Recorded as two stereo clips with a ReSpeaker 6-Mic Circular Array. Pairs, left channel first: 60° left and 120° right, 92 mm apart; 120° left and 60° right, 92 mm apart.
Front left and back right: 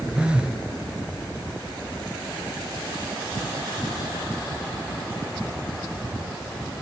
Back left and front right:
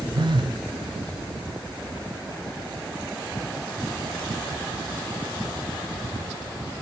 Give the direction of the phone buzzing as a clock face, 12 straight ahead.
1 o'clock.